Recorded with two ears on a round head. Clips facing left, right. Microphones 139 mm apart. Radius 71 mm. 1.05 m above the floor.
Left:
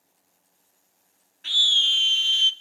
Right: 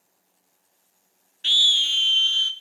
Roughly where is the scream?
Right.